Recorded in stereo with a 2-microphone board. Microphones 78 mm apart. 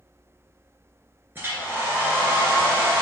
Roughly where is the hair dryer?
Right.